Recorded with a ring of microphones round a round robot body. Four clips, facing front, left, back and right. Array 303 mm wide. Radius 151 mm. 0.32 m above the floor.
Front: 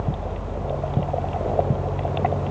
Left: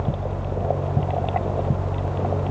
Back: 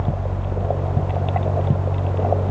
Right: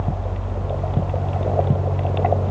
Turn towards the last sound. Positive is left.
No sound to turn to.